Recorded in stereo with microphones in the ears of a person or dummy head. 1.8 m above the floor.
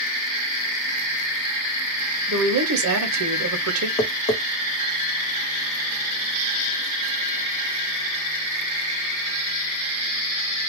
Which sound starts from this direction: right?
A woman speaking, at 2.3 s.